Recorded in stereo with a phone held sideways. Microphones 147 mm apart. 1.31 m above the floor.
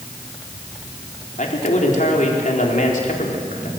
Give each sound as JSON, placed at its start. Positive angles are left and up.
{"t": 1.4, "sound": "a man speaking", "side_deg": 60, "distance_m": 4.0}